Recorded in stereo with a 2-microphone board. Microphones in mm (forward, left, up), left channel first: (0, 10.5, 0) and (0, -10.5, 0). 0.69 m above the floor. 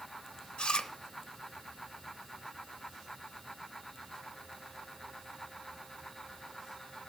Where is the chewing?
55° left (ahead or behind), 0.7 m.